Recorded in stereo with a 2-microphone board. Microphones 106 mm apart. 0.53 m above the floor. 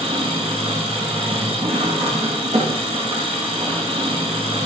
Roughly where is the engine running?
Right.